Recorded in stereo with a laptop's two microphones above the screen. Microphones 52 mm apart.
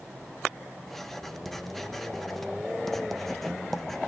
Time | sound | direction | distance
0.9 | writing | centre (ahead or behind) | 1.0 m